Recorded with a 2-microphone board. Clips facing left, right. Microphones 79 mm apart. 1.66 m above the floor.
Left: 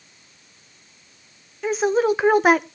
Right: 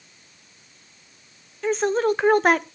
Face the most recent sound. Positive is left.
turn(degrees=5)  # may be behind; listen again after turning